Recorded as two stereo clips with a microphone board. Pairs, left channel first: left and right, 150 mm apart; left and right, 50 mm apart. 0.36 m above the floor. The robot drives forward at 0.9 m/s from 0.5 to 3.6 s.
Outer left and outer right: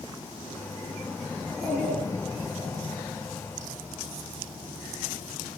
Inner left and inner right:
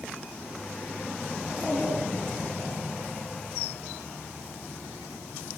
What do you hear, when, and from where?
1.4 s a child speaking: 40° left (ahead or behind), 3.5 m; by 2.8 s 30° left (ahead or behind), 4.5 m